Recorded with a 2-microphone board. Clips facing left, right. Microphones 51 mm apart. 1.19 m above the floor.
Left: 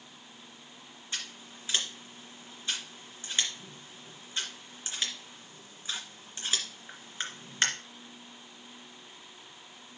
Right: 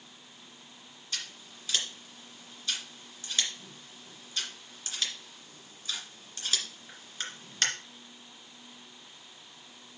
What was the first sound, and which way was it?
Scissors, 20° left (ahead or behind).